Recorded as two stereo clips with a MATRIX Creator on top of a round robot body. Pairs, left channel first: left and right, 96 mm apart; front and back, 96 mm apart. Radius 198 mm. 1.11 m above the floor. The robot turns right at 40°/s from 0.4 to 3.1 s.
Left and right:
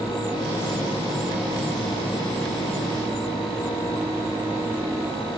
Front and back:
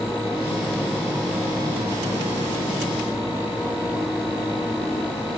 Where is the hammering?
No hammering in this recording.